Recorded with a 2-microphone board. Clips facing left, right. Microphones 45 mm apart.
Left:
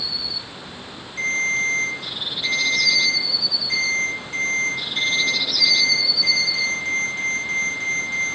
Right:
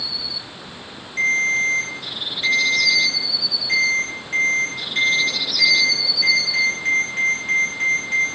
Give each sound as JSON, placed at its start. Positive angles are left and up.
{"t": 1.2, "sound": "a ringtone", "side_deg": -85, "distance_m": 4.0}